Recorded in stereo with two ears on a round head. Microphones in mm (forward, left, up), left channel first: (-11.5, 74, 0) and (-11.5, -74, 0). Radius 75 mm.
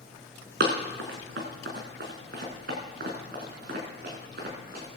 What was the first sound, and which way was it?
Running footsteps, 65° right (ahead or behind).